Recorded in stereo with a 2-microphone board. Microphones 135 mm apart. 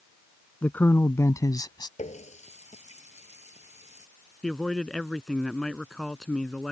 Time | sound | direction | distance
0.6 | a man speaking | 10° left (ahead or behind) | ?
2.0 | a running tap | 60° left (ahead or behind) | ?
4.4 | a man speaking | 5° left (ahead or behind) | ?